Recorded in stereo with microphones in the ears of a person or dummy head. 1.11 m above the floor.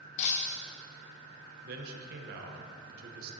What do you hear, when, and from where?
0.2 s breaking glass: 40° left (ahead or behind), 0.6 m
1.6 s a man speaking: 50° right (ahead or behind), 1.1 m